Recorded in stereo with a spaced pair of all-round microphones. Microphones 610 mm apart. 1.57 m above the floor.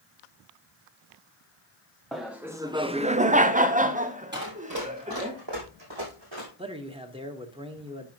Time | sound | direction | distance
2.1 | laughter | centre (ahead or behind) | 0.6 m
4.3 | running footsteps | 15° right (ahead or behind) | 2.5 m
6.6 | a man speaking | 10° right (ahead or behind) | 1.2 m